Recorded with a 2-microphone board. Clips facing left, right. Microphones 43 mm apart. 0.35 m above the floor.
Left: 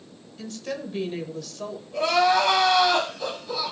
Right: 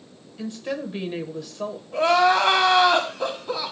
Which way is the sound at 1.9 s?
30° right (ahead or behind).